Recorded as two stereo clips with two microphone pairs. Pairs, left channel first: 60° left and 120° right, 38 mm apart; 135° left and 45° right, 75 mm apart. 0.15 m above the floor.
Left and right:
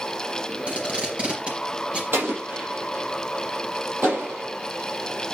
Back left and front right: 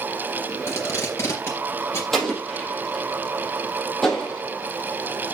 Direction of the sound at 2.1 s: 140° right.